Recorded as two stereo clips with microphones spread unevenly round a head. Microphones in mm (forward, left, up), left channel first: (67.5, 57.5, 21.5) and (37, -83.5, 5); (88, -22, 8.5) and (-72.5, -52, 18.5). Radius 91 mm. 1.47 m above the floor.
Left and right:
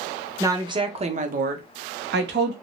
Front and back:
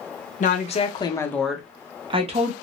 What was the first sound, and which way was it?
A woman speaking, 30° right.